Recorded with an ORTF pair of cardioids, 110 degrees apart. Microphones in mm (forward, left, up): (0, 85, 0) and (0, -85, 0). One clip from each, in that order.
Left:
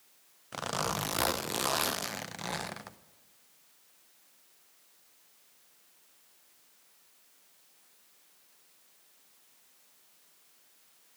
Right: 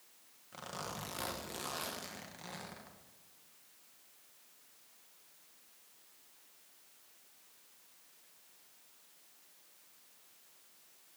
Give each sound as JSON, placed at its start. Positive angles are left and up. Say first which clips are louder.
{"t": 0.5, "sound": "a zipper", "louder": "left 11 dB", "azimuth_deg": 60, "distance_m": 0.7}